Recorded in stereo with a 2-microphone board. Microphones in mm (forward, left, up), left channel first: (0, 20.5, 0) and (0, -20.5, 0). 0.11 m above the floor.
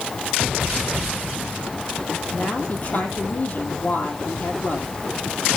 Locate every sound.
2.3 s a woman speaking: 45° left (ahead or behind), 3.5 m